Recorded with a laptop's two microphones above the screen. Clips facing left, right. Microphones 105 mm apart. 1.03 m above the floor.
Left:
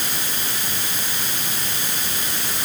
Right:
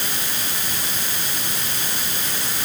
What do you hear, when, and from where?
Only background noise.